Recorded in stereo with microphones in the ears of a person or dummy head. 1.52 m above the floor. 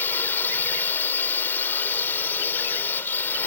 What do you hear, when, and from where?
0.0 s a drone: 10° left (ahead or behind)